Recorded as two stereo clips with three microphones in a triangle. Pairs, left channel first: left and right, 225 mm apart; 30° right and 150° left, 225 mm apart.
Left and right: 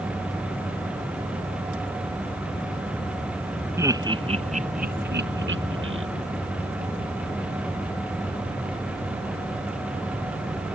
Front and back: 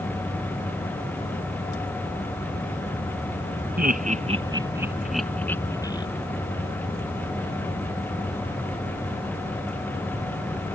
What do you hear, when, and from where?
3.8 s laughter: 165° right; by 6.0 s 100° right